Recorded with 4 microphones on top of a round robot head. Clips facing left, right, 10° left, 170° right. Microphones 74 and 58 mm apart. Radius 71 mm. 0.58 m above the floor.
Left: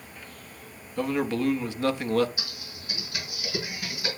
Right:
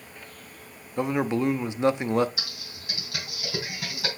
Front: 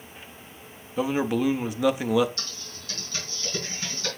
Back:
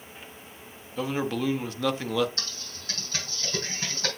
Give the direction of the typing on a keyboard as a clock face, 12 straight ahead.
4 o'clock.